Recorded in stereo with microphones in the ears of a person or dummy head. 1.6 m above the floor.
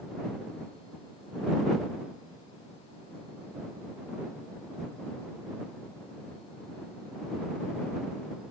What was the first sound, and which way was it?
Only background noise.